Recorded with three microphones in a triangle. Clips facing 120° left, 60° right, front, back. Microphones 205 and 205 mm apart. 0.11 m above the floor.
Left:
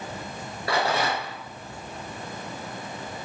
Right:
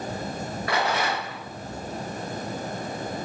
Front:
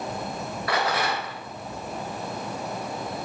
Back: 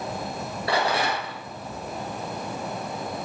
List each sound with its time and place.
0.7 s a rattle: 145° left, 2 m